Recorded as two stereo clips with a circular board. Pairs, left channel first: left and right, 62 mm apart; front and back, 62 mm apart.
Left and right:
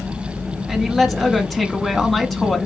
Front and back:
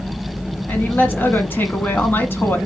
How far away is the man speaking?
About 1.3 m.